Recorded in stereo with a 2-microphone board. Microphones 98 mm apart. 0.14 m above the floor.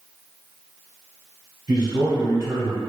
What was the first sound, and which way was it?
A man speaking, 40° right (ahead or behind).